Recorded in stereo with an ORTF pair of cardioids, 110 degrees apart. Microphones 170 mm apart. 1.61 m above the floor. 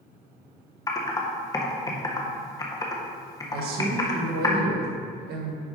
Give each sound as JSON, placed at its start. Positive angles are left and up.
{"t": 0.9, "sound": "typing on a keyboard", "azimuth_deg": 20, "distance_m": 1.5}
{"t": 3.5, "sound": "a man speaking", "azimuth_deg": -70, "distance_m": 2.0}